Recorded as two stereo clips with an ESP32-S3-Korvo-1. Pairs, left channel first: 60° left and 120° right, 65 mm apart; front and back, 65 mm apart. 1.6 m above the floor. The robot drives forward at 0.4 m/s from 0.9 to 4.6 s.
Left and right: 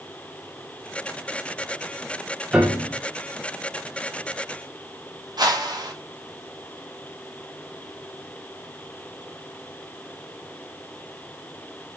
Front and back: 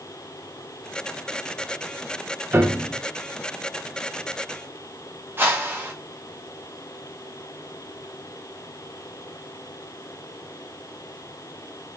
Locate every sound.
2.5 s a piano: 170° left, 0.8 m; by 3.0 s 175° left, 0.9 m
5.4 s a whoosh: 125° right, 0.8 m